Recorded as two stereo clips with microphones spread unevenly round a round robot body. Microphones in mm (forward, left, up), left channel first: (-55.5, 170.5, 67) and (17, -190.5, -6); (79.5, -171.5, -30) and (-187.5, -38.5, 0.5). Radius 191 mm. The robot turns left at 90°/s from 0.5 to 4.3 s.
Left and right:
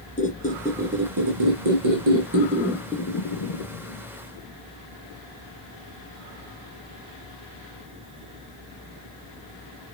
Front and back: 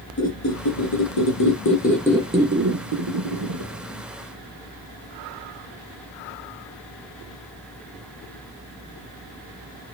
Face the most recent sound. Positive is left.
turn(degrees=50)